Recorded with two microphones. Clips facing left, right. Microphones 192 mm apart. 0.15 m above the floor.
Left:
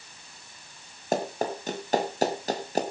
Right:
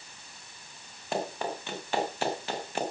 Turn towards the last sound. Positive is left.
turn(degrees=40)  # may be behind; listen again after turning